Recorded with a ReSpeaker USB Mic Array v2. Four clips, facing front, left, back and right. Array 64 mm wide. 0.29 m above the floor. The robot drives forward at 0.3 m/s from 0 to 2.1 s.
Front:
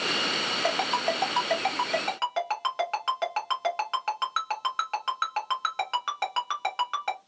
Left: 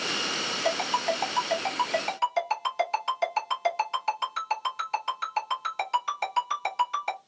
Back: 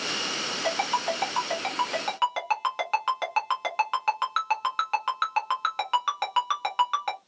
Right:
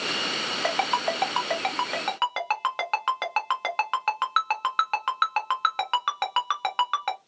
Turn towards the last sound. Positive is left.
turn(degrees=-105)